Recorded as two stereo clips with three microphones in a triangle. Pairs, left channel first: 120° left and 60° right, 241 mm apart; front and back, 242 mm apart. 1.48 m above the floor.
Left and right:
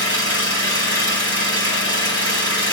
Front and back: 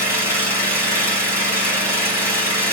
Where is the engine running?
100° left, 3 m.